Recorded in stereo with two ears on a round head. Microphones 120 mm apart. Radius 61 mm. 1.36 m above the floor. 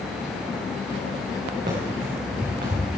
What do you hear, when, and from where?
1.7 s running footsteps: 65° right (ahead or behind), 6.5 m; by 2.9 s 70° right (ahead or behind), 7 m